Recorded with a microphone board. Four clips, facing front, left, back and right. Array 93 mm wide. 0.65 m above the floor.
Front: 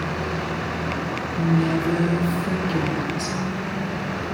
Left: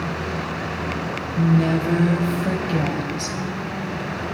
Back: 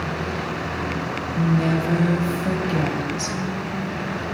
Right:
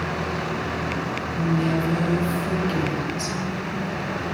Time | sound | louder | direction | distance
1.4 | a woman speaking | left 4 dB, even | 125° left | 3.5 m